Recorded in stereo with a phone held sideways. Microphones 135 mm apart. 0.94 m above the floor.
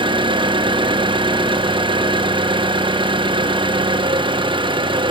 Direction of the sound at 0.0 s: 35° right (ahead or behind).